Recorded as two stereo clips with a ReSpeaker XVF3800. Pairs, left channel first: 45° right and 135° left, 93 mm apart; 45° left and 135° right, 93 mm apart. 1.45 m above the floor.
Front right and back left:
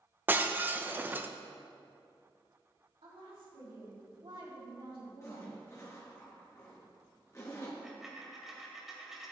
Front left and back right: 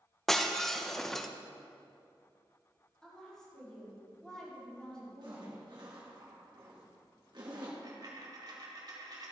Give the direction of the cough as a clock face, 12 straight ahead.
No cough in this recording.